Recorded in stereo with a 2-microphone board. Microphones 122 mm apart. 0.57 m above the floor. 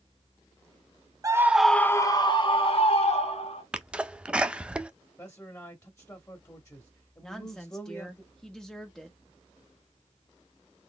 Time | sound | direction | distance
1.2 | a scream | 30° right (ahead or behind) | 0.7 m
3.7 | a sneeze | 10° right (ahead or behind) | 0.6 m
5.2 | a man speaking | 25° left (ahead or behind) | 0.9 m
7.2 | a woman speaking | 5° left (ahead or behind) | 1.0 m